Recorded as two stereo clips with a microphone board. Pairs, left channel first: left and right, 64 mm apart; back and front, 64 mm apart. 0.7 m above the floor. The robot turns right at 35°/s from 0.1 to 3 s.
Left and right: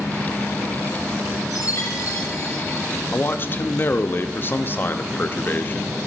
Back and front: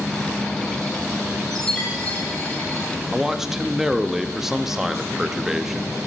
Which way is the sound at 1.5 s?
95° left.